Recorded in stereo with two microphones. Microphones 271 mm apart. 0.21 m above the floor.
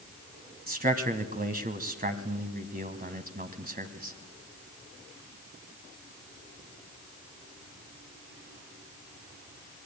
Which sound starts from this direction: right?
A man speaking, at 0.7 s.